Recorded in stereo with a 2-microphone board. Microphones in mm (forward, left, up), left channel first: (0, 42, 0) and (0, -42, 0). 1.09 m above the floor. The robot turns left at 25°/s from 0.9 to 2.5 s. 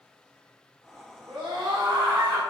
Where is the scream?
80° right, 1.3 m; by 2.4 s 55° right (ahead or behind), 1.3 m.